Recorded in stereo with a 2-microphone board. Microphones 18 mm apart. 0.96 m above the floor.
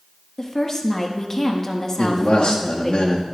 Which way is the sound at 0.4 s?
30° left (ahead or behind).